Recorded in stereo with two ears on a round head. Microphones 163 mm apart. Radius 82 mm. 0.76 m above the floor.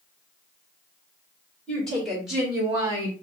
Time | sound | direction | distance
1.7 | a woman speaking | 5° left (ahead or behind) | 2.5 m